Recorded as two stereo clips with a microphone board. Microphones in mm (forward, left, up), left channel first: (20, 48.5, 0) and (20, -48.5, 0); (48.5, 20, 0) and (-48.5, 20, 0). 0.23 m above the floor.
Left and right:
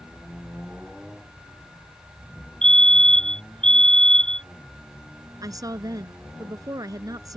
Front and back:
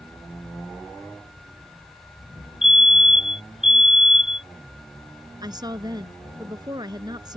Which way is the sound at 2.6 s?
95° right.